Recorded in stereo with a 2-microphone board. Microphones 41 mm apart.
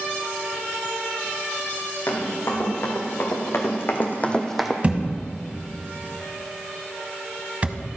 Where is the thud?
30° right (ahead or behind), 1.2 m.